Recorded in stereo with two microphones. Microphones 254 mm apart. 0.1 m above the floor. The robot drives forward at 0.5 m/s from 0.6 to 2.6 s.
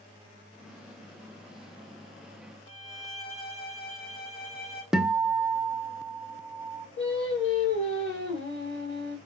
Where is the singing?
50° left (ahead or behind), 2.5 m.